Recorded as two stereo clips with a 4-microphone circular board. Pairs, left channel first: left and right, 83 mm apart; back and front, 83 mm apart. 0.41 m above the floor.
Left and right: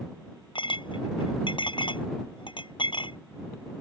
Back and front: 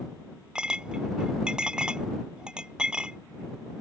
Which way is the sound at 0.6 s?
80° left.